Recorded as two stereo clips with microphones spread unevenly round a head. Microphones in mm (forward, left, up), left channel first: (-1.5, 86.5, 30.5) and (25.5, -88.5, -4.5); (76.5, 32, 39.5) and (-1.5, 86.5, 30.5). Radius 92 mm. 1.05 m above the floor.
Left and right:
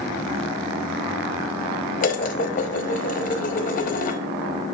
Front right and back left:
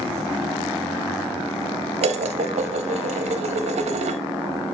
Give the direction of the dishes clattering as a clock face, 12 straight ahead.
7 o'clock.